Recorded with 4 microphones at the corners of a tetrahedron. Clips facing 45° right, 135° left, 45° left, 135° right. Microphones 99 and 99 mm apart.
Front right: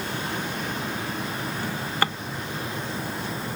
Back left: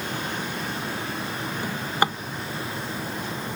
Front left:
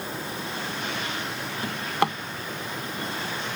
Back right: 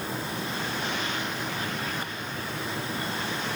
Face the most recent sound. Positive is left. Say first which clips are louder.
# back left 3 dB, front left 6 dB
turn(degrees=65)